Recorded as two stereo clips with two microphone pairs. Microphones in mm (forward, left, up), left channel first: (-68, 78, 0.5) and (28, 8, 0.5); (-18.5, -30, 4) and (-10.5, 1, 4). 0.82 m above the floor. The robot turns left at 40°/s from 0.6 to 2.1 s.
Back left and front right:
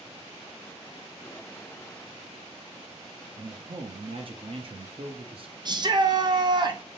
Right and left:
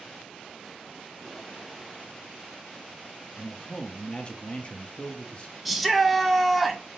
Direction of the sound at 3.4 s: 65° right.